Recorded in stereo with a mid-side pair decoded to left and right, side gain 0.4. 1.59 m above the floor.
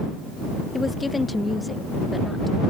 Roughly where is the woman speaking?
Ahead left.